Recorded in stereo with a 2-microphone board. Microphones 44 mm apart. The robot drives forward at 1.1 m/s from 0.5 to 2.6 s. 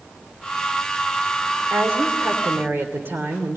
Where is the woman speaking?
70° right (ahead or behind), 3 m; by 3.6 s 60° right (ahead or behind), 3 m.